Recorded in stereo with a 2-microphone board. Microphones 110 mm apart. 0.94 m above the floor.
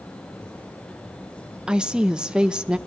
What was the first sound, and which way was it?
A woman speaking, 10° right (ahead or behind).